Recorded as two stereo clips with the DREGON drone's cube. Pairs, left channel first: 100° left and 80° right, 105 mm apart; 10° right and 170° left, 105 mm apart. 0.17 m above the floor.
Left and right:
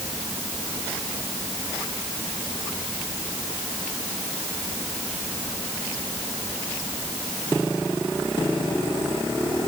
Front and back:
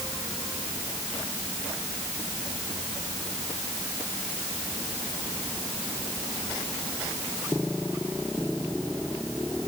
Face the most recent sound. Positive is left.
No sound to turn to.